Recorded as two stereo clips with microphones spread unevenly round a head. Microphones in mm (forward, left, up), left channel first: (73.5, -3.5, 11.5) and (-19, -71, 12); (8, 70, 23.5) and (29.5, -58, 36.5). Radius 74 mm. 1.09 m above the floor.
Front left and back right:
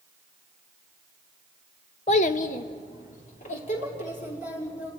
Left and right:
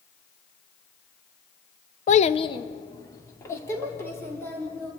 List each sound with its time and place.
2.1 s a child speaking: 85° left, 0.6 m; by 4.9 s 25° left, 4.5 m